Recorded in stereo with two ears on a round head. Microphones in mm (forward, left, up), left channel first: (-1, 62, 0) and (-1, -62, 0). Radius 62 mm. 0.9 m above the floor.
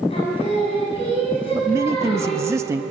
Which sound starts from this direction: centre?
A man speaking, at 1.5 s.